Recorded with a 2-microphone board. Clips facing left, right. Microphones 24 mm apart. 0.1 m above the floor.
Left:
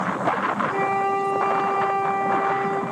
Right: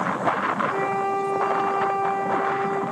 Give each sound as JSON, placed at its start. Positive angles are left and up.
{"t": 0.7, "sound": "a flute", "side_deg": 10, "distance_m": 4.0}